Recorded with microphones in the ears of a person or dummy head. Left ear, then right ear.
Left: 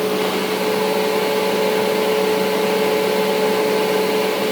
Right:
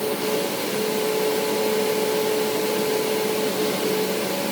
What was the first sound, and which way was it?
Only background noise.